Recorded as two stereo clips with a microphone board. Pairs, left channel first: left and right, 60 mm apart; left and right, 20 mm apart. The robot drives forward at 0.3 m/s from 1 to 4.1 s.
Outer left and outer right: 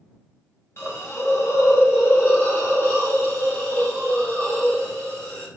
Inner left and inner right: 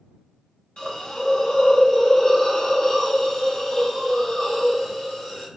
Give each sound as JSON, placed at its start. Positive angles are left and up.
{"t": 0.8, "sound": "a hiss", "side_deg": 45, "distance_m": 0.7}